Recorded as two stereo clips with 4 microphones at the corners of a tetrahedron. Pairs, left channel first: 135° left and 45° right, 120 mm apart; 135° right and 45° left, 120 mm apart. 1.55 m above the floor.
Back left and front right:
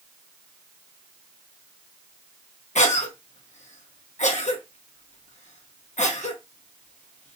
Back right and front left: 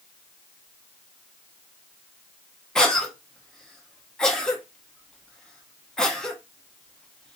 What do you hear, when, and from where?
2.8 s a cough: 140° left, 0.9 m